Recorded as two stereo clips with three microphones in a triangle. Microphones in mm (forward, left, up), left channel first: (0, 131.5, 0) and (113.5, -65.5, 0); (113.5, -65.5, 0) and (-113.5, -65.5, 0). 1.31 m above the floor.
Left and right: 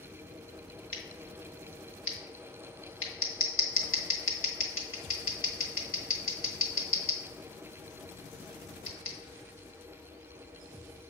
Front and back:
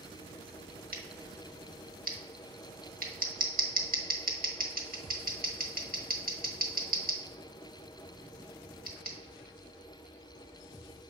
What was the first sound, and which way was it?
Scissors, 135° left.